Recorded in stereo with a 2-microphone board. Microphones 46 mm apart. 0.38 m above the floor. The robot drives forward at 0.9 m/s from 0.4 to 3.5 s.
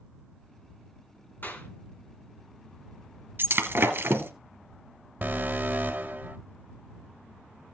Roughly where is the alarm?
Right.